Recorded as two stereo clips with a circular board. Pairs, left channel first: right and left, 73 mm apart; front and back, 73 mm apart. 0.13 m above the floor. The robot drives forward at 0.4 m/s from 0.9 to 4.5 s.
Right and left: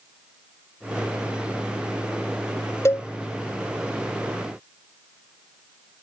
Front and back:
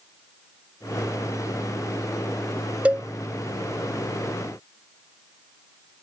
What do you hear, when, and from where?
2.9 s a cowbell: 115° right; by 3.1 s 120° right